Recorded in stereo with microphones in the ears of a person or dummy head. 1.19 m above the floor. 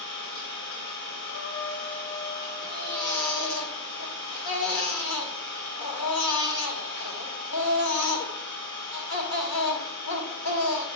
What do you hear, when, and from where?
0.0 s an engine running: 60° left (ahead or behind), 5 m
1.2 s a trumpet: 40° left (ahead or behind), 2.5 m
2.6 s a baby crying: 60° left (ahead or behind), 1.9 m